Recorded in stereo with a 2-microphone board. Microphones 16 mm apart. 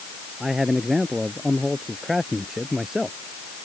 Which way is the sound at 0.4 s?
20° right (ahead or behind).